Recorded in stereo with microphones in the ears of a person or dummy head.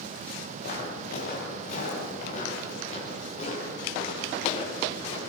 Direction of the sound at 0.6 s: 60° left (ahead or behind).